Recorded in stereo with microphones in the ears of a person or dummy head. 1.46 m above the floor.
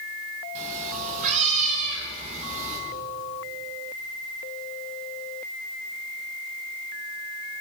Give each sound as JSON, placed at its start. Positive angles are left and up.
{"t": 0.6, "sound": "a cat meowing", "side_deg": -40, "distance_m": 3.0}